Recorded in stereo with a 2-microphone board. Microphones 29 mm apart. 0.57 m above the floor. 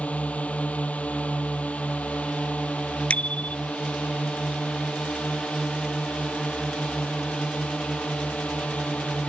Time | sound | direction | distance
0.0 | a drone | 50° left (ahead or behind) | ?
3.1 | a bicycle bell | 50° left (ahead or behind) | ?